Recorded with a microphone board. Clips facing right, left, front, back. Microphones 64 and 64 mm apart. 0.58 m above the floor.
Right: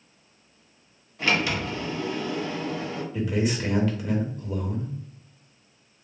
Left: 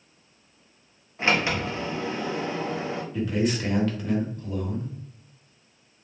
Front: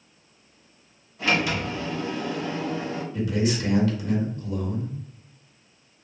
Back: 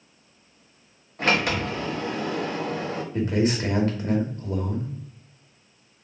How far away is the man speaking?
About 0.9 m.